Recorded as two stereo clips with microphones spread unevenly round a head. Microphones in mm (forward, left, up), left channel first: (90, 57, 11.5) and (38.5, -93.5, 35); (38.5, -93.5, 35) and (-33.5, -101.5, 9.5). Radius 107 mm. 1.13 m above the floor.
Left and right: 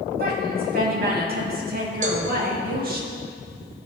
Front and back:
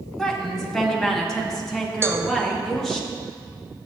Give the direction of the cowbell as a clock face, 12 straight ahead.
5 o'clock.